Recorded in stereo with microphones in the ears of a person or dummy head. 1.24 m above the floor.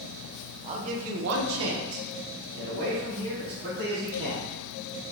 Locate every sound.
0.6 s a man speaking: 30° right (ahead or behind), 0.6 m; by 4.5 s 45° right (ahead or behind), 1.7 m